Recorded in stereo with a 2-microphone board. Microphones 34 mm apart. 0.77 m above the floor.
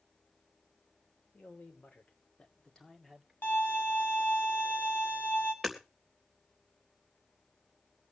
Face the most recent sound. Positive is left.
turn(degrees=5)  # may be behind; listen again after turning